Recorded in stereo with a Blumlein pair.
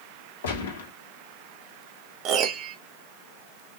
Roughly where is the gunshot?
Ahead left.